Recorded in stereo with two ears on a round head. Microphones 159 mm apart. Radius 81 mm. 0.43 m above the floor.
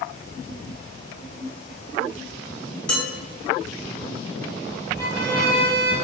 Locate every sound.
2.9 s dishes clattering: 5° left (ahead or behind), 1.2 m
5.0 s a violin: 15° left (ahead or behind), 1.5 m